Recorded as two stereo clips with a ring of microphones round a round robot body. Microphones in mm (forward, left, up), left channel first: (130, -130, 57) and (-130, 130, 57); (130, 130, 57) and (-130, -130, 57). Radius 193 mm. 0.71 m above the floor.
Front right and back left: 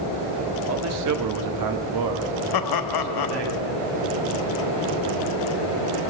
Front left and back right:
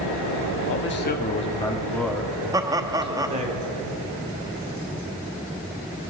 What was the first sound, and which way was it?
A man speaking, 90° left.